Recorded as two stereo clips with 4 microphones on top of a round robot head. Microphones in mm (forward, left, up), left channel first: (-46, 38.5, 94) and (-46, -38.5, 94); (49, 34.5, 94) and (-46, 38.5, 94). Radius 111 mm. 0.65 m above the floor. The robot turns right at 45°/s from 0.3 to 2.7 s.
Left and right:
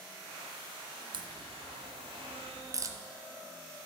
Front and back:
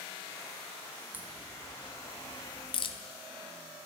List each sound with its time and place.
1.1 s a crack: 110° right, 0.8 m; by 3.0 s 40° right, 0.8 m